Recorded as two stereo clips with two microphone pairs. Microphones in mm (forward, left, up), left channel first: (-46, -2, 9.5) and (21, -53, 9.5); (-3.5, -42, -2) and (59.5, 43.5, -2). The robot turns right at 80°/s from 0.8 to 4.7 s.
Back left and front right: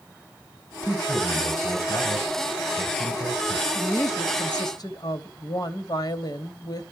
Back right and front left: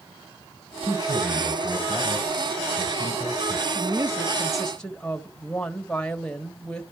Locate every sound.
0.8 s a man speaking: 90° left, 4 m; by 3.6 s 45° right, 4 m
3.8 s a woman speaking: 80° left, 1.4 m; by 6.8 s 155° left, 1.4 m